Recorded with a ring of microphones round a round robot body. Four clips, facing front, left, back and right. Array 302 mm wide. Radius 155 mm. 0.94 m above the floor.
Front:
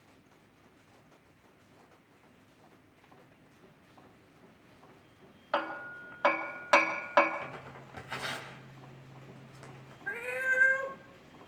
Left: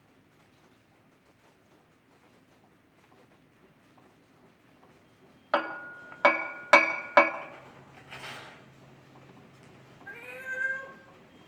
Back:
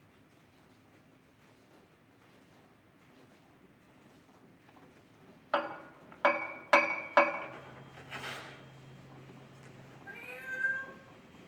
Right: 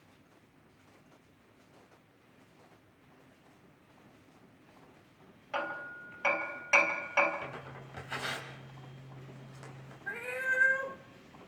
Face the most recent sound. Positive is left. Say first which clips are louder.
# right 6 dB, front 12 dB
turn(degrees=-25)